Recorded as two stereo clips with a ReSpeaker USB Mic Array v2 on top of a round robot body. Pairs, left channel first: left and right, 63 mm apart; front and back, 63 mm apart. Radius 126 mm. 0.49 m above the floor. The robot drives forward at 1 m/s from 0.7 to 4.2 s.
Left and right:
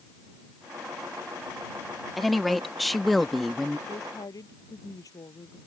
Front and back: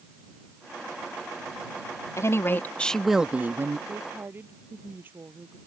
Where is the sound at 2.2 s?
Straight ahead; by 3.8 s straight behind.